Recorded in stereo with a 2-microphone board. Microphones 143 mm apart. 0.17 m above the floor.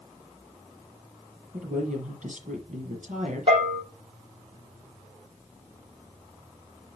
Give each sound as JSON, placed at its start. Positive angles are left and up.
{"t": 1.5, "sound": "a woman speaking", "side_deg": -70, "distance_m": 4.5}
{"t": 3.5, "sound": "a bell", "side_deg": -45, "distance_m": 6.0}